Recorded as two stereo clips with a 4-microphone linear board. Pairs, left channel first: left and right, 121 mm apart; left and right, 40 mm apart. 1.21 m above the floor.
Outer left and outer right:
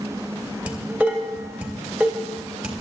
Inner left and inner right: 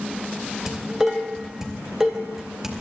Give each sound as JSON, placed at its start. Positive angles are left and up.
{"t": 0.7, "sound": "dishes clattering", "side_deg": -10, "distance_m": 3.5}